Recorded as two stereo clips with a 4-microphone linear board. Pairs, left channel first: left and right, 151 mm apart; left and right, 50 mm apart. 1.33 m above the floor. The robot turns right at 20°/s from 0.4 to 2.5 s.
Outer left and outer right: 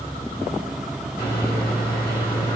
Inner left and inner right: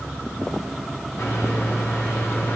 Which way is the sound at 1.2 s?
80° left.